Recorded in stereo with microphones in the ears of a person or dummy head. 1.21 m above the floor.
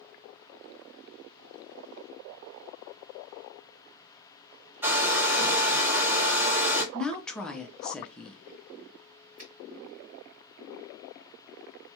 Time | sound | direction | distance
4.8 | a hair dryer | 10° right (ahead or behind) | 1.1 m
6.9 | a woman speaking | 5° left (ahead or behind) | 0.5 m
9.4 | a finger snap | 40° right (ahead or behind) | 1.7 m